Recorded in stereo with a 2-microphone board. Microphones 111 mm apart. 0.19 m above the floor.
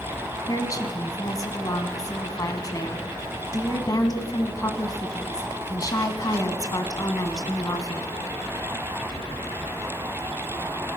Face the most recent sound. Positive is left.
turn(degrees=35)  # may be behind; listen again after turning